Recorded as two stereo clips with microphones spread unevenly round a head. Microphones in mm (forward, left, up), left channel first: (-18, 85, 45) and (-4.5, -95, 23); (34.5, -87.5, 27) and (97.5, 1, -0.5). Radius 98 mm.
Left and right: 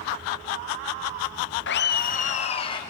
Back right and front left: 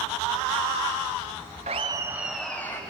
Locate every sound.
1.7 s laughter: 115° left, 0.9 m; by 2.8 s 160° left, 1.5 m